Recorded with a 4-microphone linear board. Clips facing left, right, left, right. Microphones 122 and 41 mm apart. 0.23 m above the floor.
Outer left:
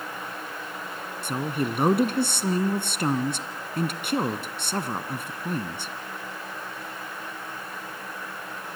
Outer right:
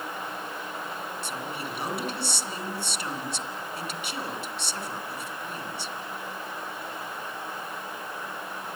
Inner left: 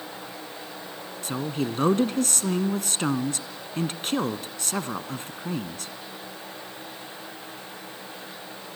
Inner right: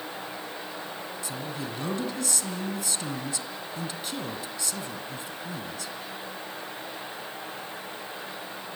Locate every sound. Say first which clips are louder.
1.2 s a woman speaking: outer left 12 dB, inner left 9 dB; 55° left (ahead or behind), 2 m